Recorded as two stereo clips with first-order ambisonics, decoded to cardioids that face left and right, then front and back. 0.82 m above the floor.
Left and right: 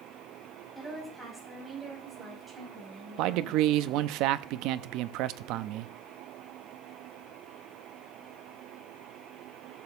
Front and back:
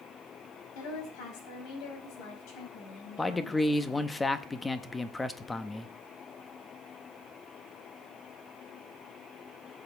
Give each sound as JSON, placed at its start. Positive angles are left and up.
{"t": 0.8, "sound": "a woman speaking", "azimuth_deg": 0, "distance_m": 5.0}
{"t": 3.2, "sound": "a man speaking", "azimuth_deg": -80, "distance_m": 0.7}